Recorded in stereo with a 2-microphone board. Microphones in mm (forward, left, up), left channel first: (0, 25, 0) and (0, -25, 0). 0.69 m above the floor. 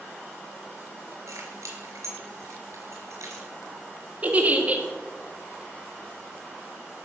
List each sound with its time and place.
1.3 s keys jangling: 75° right (ahead or behind), 4.5 m
4.2 s a giggle: 30° right (ahead or behind), 1.7 m